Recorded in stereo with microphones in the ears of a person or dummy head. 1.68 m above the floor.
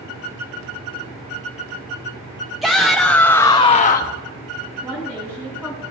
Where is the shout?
5° right (ahead or behind), 1.1 m; by 4.2 s 45° left (ahead or behind), 0.6 m.